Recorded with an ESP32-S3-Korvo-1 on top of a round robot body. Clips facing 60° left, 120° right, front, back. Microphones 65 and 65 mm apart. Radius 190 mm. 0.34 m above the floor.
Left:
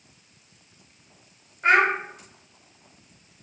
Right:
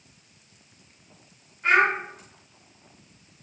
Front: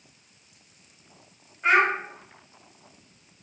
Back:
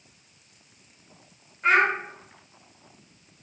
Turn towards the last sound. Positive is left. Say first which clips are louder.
# left 1 dB, even
turn(degrees=80)